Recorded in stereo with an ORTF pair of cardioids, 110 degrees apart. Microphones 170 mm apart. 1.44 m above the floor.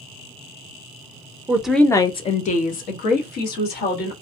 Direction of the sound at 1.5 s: 15° right.